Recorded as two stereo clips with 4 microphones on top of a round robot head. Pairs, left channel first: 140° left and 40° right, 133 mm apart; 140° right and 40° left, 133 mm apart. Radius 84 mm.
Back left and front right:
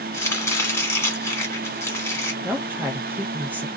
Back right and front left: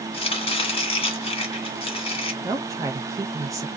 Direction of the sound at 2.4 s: 20° left.